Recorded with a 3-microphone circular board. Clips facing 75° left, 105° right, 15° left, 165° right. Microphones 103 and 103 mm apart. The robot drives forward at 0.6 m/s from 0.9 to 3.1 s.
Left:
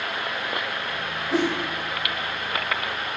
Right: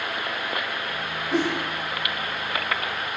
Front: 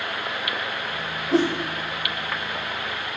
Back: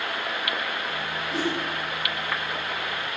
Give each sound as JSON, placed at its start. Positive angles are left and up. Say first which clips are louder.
{"t": 1.3, "sound": "a whoosh", "louder": "left 1 dB, front 8 dB", "azimuth_deg": -5, "distance_m": 6.0}